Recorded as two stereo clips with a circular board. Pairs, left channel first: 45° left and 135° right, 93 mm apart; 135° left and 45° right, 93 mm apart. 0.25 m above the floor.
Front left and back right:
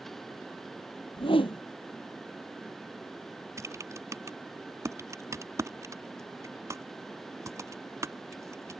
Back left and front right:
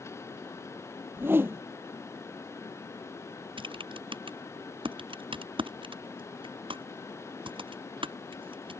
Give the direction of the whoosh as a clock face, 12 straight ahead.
11 o'clock.